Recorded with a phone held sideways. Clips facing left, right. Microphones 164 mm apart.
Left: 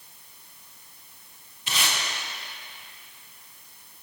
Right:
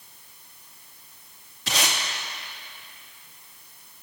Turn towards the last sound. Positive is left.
turn(degrees=-75)  # may be behind; listen again after turning